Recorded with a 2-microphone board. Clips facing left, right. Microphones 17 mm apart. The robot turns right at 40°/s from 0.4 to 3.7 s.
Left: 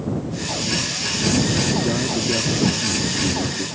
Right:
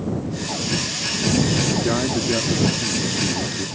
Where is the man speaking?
65° right; by 3.7 s 15° left.